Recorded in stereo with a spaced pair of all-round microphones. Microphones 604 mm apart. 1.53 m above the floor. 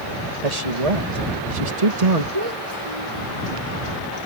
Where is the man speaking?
85° right.